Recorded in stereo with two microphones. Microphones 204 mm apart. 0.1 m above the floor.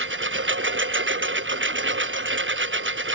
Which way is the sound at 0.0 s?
70° right (ahead or behind).